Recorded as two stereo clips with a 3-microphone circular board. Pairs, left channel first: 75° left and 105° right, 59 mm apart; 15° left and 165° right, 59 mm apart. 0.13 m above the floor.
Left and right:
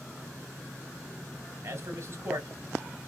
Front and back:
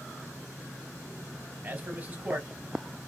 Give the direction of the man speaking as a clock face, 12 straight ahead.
4 o'clock.